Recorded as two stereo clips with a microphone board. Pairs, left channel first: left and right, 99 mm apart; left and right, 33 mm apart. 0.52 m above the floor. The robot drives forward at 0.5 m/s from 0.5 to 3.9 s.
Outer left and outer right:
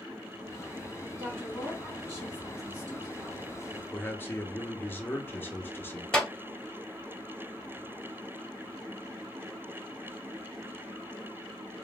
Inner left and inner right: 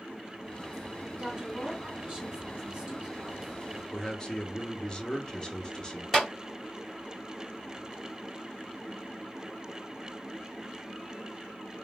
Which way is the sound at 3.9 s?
20° left (ahead or behind).